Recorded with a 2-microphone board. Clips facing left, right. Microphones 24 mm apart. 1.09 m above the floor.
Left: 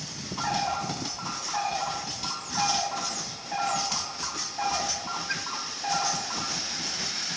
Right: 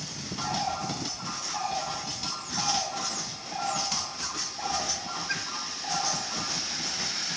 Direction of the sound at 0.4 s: 45° left (ahead or behind).